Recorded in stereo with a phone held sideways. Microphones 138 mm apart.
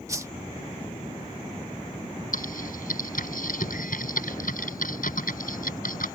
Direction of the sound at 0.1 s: 20° right (ahead or behind).